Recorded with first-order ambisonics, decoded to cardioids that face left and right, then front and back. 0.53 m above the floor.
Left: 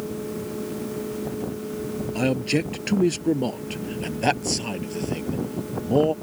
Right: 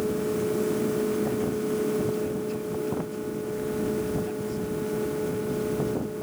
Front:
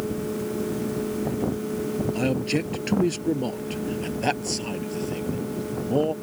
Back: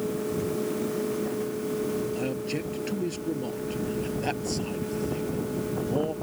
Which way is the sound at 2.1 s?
65° left.